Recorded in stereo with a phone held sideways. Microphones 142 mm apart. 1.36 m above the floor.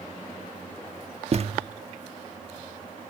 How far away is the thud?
About 1.0 m.